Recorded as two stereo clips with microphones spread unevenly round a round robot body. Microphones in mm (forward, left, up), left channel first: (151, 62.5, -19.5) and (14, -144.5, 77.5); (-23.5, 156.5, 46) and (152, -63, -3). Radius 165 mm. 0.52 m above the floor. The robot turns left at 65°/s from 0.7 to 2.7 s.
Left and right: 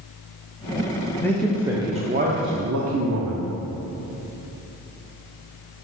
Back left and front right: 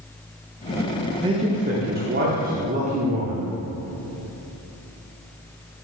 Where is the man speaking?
10° left, 0.8 m; by 3.5 s 90° right, 0.8 m.